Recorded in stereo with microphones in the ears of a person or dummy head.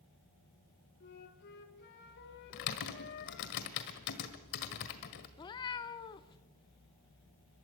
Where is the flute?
60° left (ahead or behind), 2.5 m.